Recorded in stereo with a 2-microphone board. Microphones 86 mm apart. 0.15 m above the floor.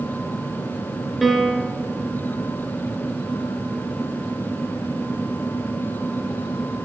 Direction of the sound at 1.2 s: Centre (ahead or behind).